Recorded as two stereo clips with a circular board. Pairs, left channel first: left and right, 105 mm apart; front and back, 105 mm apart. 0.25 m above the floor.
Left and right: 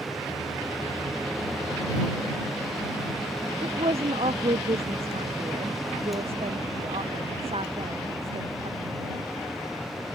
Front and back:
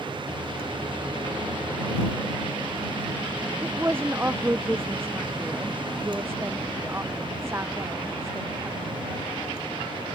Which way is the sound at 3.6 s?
110° right.